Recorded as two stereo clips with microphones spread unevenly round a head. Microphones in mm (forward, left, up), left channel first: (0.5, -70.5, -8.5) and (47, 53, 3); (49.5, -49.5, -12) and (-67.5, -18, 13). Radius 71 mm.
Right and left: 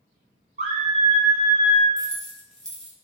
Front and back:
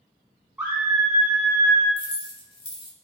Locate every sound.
0.6 s a scream: 90° left, 1.0 m; by 1.9 s 160° left, 0.6 m
2.0 s keys jangling: 20° right, 0.9 m